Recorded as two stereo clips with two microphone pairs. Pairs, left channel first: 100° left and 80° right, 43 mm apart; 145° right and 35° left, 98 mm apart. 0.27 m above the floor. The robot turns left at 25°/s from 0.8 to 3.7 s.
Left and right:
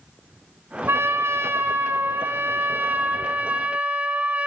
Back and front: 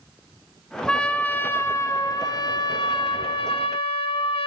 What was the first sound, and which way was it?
A trumpet, 65° right.